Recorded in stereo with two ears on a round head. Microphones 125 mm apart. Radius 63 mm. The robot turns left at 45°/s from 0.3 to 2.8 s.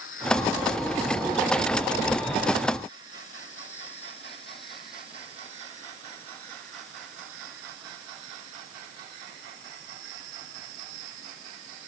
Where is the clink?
No clink in this recording.